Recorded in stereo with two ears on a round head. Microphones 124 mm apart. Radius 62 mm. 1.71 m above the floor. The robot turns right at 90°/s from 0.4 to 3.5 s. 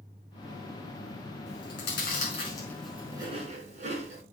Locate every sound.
1.5 s chewing: 55° left (ahead or behind), 5 m; by 4.2 s 55° right (ahead or behind), 5 m